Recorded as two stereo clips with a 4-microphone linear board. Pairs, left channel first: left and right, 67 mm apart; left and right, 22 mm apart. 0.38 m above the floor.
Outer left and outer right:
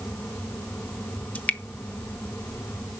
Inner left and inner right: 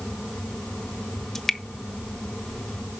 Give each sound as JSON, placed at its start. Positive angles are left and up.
{"t": 1.4, "sound": "dripping", "side_deg": 20, "distance_m": 0.9}